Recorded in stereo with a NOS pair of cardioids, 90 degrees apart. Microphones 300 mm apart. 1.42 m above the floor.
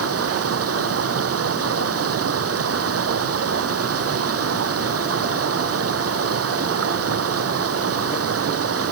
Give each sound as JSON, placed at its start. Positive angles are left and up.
{"t": 0.0, "sound": "running water", "azimuth_deg": -50}